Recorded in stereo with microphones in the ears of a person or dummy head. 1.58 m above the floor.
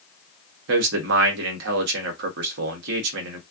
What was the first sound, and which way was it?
A man speaking, 70° right (ahead or behind).